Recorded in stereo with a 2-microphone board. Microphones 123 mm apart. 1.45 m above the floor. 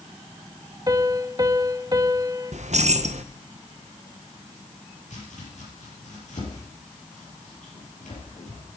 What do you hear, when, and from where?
0.9 s a piano: 35° right (ahead or behind), 0.9 m
2.5 s keys jangling: 70° right (ahead or behind), 0.7 m
5.1 s chopping: 75° left (ahead or behind), 6.5 m